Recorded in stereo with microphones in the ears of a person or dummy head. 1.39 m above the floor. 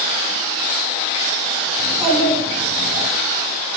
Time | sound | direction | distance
1.8 | a child speaking | 10° right (ahead or behind) | 5.5 m